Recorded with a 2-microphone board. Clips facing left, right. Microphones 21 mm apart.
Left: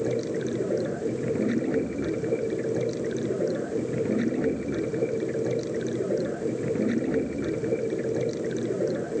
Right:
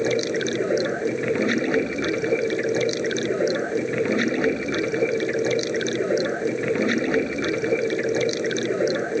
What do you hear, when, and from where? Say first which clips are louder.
0.0 s running water: right 5 dB; 75° right (ahead or behind)